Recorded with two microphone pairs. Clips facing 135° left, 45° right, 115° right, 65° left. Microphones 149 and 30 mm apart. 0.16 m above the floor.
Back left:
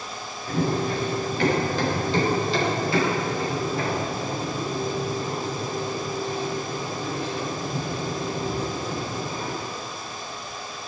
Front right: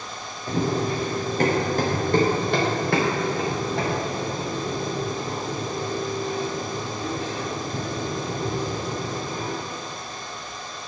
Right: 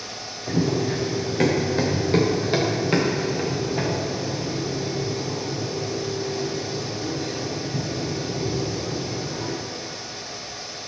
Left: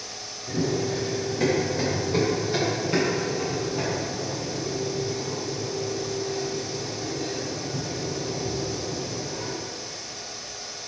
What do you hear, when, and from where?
0.5 s running footsteps: 105° right, 2.5 m; by 9.5 s 35° right, 5 m